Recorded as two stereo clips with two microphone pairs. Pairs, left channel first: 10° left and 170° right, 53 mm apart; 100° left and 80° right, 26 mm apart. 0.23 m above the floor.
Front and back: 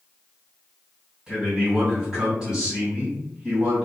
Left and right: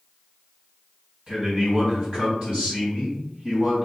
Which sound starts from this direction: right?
A man speaking, at 1.3 s.